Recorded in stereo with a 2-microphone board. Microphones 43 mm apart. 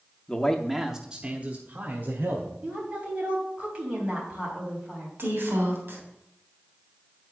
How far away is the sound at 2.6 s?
About 3.5 m.